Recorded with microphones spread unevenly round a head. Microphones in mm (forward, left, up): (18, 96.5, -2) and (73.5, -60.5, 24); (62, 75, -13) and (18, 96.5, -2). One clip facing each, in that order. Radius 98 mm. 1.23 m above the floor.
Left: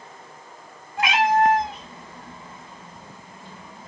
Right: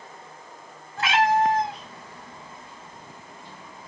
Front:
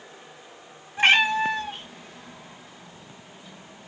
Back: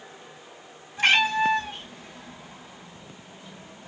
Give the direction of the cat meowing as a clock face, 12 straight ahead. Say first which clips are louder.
Left 2 dB, front 2 dB; 11 o'clock.